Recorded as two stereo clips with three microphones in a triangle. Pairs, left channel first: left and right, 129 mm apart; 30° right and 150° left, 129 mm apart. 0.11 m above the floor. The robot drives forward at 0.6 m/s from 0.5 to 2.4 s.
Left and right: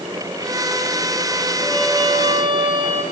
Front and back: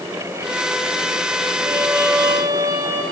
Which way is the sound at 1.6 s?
135° right.